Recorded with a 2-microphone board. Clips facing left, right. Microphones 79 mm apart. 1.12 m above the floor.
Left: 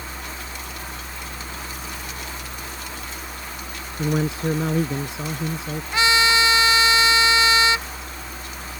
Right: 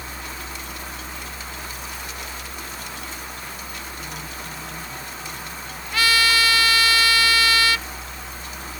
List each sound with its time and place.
4.0 s a man speaking: 85° left; by 5.8 s 90° left
5.9 s a trumpet: 20° left (ahead or behind)